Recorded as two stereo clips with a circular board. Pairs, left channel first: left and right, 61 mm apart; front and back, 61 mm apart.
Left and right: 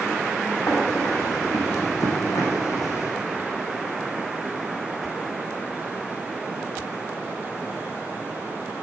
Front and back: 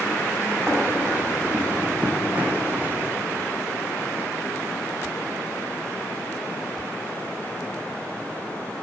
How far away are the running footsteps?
About 3.5 m.